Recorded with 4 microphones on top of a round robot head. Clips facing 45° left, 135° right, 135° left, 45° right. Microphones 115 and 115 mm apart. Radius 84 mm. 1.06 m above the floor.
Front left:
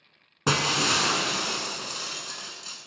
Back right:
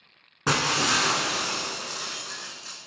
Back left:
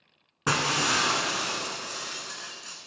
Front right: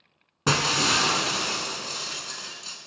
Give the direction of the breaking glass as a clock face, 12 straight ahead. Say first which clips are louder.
Even, front right 2 dB; 12 o'clock.